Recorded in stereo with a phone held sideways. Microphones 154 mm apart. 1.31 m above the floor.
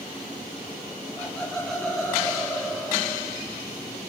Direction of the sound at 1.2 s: 5° left (ahead or behind).